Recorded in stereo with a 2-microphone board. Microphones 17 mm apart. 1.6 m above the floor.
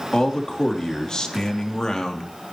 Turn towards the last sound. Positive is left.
turn(degrees=40)  # may be behind; listen again after turning